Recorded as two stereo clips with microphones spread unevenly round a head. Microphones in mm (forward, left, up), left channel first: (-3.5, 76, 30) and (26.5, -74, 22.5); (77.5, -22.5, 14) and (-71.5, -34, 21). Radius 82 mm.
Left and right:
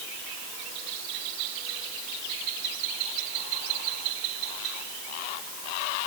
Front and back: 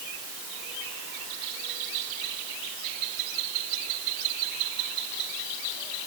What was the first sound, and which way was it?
Only background noise.